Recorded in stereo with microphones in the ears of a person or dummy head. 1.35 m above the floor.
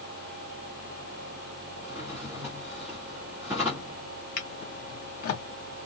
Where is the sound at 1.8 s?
10° right (ahead or behind), 1.0 m.